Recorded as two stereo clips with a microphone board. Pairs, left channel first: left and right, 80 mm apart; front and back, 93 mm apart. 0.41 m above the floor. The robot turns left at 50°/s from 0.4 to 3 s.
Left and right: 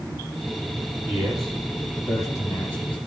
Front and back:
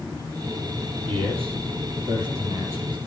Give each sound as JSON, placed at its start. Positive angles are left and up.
{"t": 1.1, "sound": "a man speaking", "azimuth_deg": -160, "distance_m": 9.5}